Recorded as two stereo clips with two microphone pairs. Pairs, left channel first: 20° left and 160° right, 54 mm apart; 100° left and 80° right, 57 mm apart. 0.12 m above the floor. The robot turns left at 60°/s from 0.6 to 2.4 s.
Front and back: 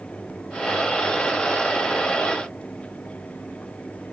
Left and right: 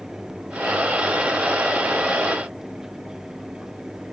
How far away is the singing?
No singing in this recording.